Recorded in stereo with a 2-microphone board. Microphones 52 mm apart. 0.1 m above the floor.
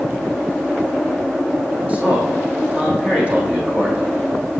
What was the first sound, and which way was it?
A man speaking, 30° right (ahead or behind).